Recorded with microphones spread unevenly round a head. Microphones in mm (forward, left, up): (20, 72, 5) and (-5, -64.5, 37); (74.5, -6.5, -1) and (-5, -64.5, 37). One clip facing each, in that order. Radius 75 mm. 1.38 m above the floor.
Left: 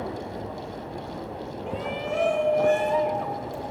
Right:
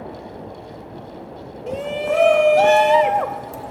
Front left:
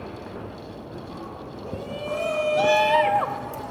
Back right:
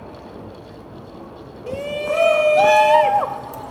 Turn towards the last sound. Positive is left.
turn(degrees=-70)